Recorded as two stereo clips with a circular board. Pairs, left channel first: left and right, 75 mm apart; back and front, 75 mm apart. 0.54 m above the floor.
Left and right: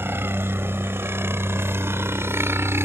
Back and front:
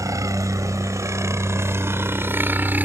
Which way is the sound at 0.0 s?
35° right.